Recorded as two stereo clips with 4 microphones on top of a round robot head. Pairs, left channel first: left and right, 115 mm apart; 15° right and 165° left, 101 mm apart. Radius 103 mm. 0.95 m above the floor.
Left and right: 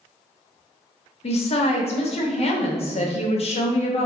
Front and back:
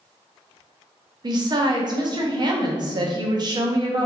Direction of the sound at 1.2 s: 120° left.